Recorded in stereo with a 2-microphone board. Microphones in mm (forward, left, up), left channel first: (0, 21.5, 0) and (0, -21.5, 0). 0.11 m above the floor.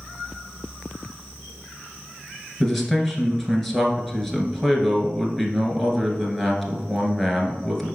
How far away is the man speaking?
About 1.3 m.